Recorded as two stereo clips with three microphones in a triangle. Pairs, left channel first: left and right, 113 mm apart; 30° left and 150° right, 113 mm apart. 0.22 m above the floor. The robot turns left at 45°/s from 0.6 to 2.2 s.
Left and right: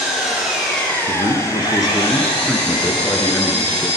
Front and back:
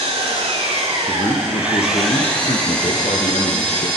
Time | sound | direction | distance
0.0 | an engine running | straight behind | 9 m
1.1 | a man speaking | 70° left | 3.5 m